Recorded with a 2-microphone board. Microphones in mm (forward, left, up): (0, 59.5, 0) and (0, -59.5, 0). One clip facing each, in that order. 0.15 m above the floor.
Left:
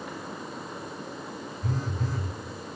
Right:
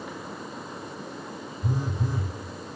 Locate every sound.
1.6 s a phone buzzing: 15° right (ahead or behind), 1.4 m